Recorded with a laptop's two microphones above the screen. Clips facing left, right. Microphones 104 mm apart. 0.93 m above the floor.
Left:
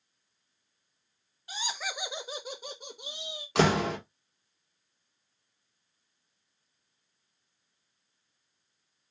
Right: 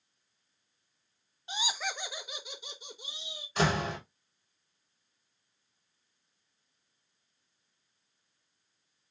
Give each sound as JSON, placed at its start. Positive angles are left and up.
{"t": 1.5, "sound": "laughter", "side_deg": -25, "distance_m": 0.5}
{"t": 3.5, "sound": "a door slam", "side_deg": 80, "distance_m": 1.1}